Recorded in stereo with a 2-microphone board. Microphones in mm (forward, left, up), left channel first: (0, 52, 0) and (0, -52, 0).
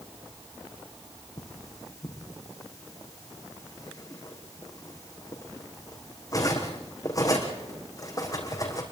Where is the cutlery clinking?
35° left (ahead or behind), 4.5 m.